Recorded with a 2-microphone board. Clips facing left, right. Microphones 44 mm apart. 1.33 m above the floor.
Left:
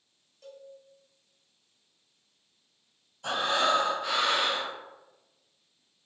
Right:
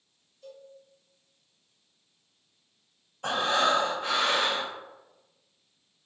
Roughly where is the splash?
No splash in this recording.